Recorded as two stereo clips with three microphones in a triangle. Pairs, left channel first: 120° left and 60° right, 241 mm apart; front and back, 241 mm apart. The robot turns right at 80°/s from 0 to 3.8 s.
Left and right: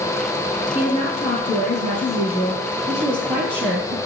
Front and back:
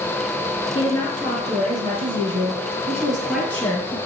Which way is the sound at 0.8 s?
60° left.